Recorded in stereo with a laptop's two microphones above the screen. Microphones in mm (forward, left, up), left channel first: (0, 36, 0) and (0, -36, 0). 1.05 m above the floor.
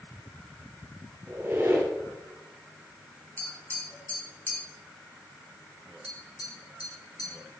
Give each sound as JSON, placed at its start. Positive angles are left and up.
{"t": 1.3, "sound": "a squeak", "side_deg": -45, "distance_m": 1.9}
{"t": 3.4, "sound": "tapping", "side_deg": 20, "distance_m": 1.9}
{"t": 6.0, "sound": "tapping", "side_deg": 80, "distance_m": 1.9}